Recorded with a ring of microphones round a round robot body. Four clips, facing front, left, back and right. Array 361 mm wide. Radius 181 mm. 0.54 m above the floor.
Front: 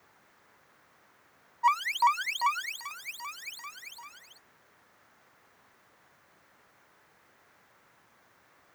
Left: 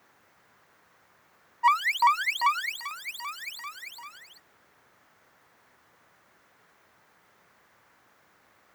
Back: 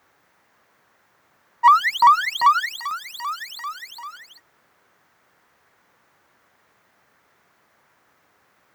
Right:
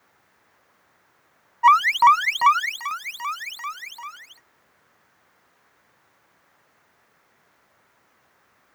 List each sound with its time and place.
1.6 s an alarm: 145° right